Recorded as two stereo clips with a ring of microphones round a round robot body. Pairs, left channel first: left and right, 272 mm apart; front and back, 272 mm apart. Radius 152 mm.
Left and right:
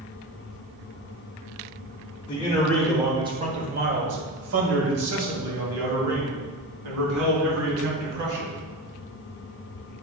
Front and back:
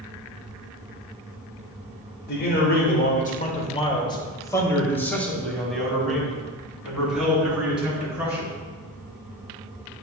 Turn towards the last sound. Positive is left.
turn(degrees=-95)